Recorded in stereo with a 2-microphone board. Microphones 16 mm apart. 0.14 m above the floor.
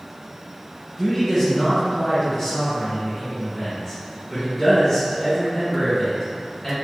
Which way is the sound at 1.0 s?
25° left (ahead or behind).